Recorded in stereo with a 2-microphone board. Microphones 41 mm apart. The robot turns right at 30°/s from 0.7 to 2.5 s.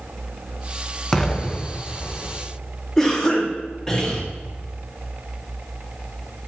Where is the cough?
10° left (ahead or behind), 2.5 m.